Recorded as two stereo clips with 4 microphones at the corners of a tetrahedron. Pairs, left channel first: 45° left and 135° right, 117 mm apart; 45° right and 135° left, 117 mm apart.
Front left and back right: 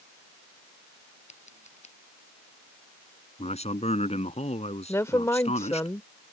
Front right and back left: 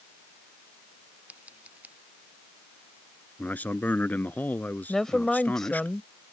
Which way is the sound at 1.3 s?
55° left.